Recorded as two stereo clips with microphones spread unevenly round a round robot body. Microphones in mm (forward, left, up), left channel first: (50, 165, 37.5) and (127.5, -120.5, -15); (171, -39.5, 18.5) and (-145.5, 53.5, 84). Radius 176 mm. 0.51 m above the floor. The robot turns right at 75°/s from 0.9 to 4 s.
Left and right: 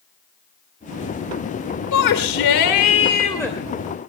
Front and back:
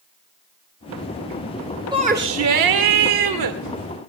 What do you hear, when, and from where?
1.9 s a shout: 80° left, 2.5 m; by 3.6 s 155° right, 2.5 m